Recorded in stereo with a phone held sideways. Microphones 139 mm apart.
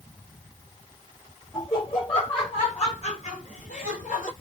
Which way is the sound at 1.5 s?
25° left (ahead or behind).